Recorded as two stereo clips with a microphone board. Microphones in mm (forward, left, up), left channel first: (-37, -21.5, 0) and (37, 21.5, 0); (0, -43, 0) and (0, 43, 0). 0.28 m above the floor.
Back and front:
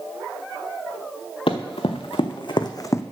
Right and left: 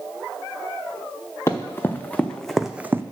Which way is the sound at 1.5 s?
150° right.